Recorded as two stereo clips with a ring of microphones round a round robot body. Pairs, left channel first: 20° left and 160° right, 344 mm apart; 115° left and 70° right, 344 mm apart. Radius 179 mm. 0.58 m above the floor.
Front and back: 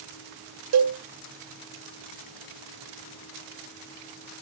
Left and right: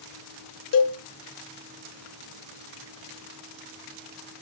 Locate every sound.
0.7 s a cowbell: 160° left, 1.4 m